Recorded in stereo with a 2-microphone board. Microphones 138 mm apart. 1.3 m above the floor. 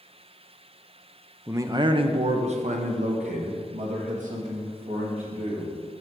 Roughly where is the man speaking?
Centre.